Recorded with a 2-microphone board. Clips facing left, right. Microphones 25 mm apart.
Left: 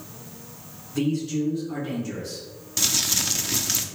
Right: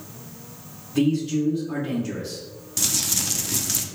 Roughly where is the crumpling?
Centre.